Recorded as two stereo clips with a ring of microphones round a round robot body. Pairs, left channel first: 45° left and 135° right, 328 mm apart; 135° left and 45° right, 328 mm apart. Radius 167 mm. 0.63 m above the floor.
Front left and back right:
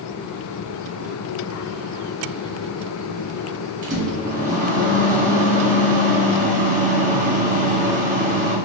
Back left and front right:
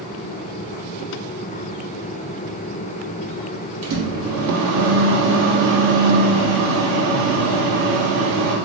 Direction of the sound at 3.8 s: 75° right.